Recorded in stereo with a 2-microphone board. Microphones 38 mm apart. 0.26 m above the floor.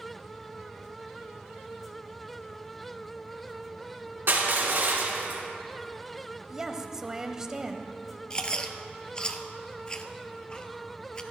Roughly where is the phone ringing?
I don't hear a phone ringing.